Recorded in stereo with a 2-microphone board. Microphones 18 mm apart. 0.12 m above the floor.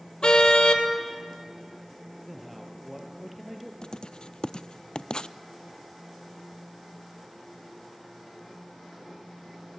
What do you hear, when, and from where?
0.2 s a car horn: 55° left (ahead or behind), 2 m
2.3 s a man speaking: centre (ahead or behind), 3 m
3.8 s writing: 55° left (ahead or behind), 0.5 m